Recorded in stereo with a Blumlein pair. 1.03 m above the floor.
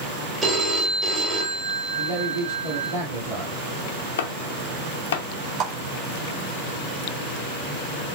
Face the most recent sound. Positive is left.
turn(degrees=-30)